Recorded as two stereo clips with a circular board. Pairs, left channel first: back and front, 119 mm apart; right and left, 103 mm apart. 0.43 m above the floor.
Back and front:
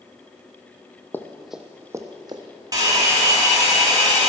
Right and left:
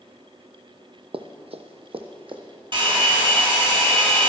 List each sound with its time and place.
1.1 s running footsteps: 110° left, 1.0 m; by 2.4 s 55° left, 1.6 m
2.7 s a hair dryer: 55° left, 3.5 m